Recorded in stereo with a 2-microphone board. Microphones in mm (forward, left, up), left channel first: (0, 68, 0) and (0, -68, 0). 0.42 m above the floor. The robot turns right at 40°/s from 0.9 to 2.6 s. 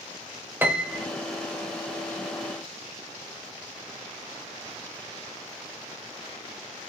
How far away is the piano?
About 0.7 m.